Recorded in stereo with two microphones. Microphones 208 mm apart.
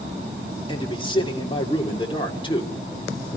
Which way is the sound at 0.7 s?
25° left (ahead or behind).